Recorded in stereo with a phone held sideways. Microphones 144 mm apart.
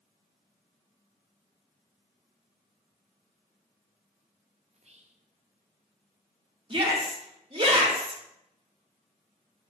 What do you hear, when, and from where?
4.7 s whispering: 50° right (ahead or behind), 0.8 m
6.7 s a shout: 35° right (ahead or behind), 1.6 m